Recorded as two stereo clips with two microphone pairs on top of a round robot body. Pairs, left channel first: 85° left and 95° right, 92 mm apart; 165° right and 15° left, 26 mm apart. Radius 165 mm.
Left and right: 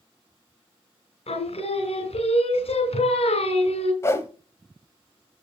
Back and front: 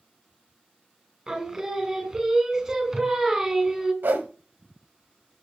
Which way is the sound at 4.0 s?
20° left.